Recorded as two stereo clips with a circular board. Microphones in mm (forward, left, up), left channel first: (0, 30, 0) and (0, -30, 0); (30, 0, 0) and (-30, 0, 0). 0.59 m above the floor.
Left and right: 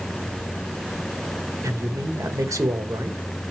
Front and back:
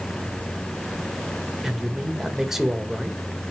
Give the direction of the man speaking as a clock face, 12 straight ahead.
3 o'clock.